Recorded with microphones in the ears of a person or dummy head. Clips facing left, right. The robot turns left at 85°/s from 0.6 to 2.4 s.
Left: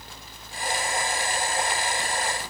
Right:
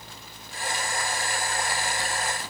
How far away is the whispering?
I don't hear whispering.